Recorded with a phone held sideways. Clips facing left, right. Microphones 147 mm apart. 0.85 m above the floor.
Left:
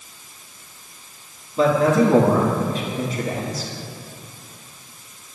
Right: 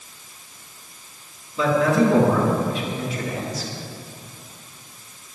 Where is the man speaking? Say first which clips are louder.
Left 2 dB; 40° left (ahead or behind), 1.9 m.